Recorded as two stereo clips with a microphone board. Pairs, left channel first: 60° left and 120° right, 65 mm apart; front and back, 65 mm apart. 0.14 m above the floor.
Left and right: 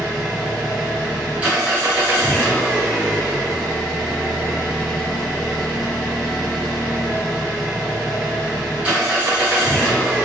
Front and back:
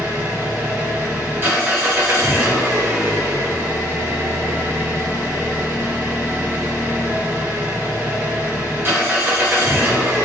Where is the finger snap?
I don't hear a finger snap.